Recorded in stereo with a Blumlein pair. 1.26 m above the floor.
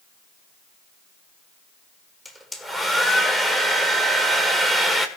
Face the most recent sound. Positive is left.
turn(degrees=5)